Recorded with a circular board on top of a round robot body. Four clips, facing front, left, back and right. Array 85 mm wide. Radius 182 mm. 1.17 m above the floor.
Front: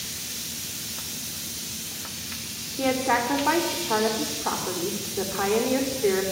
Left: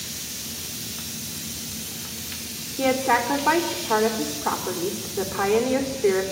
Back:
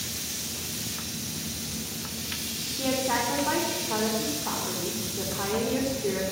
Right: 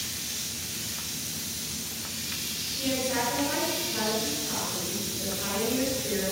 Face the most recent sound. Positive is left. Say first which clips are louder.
# left 8 dB, front 4 dB
turn(degrees=60)